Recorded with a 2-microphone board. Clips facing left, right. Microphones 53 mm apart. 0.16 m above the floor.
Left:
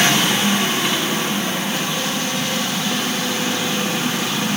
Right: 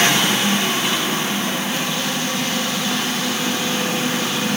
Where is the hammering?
No hammering in this recording.